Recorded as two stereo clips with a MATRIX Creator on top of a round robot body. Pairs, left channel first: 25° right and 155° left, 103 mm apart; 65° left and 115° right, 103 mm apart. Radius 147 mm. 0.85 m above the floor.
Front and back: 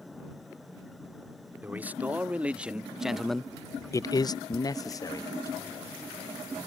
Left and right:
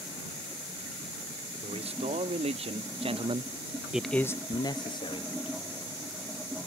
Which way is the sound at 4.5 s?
130° right.